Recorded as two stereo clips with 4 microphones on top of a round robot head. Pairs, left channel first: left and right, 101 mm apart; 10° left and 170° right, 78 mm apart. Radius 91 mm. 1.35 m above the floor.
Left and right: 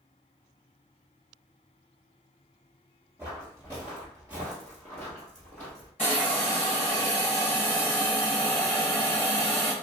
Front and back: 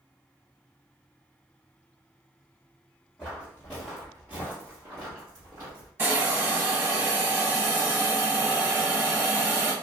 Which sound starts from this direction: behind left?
A hiss, at 6.0 s.